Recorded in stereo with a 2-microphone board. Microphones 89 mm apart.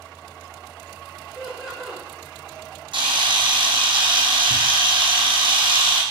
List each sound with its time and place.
1.4 s laughter: 5° right (ahead or behind), 1.1 m
2.9 s a camera shutter: 65° right (ahead or behind), 0.8 m